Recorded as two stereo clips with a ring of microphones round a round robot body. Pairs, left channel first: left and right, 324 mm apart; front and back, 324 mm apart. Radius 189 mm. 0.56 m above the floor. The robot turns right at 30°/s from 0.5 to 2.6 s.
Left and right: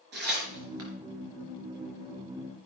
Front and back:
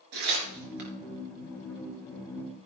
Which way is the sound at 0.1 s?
150° right.